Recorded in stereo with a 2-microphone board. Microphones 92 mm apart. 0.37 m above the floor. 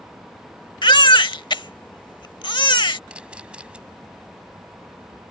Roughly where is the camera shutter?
Centre.